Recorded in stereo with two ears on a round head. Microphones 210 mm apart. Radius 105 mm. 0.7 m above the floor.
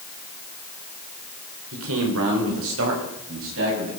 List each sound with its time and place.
1.7 s a man speaking: 65° right (ahead or behind), 3 m; by 3.9 s 60° right (ahead or behind), 6.5 m